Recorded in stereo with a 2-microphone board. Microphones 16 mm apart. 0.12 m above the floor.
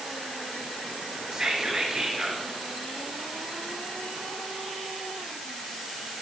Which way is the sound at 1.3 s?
45° right (ahead or behind).